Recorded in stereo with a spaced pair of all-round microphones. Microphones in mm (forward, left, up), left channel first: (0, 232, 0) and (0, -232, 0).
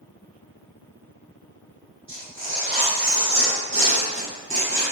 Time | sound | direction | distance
2.1 | tearing paper | 25° right (ahead or behind) | 1.6 m